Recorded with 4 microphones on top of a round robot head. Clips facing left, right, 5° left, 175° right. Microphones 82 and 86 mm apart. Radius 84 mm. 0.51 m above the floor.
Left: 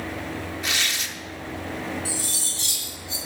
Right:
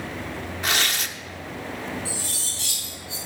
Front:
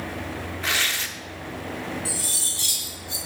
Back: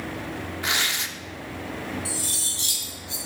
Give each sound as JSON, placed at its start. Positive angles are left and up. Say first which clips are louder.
{"t": 0.6, "sound": "tearing paper", "louder": "right 6 dB, front 1 dB", "azimuth_deg": -110, "distance_m": 0.9}
{"t": 2.0, "sound": "cutlery clinking", "louder": "left 1 dB, even", "azimuth_deg": 115, "distance_m": 6.0}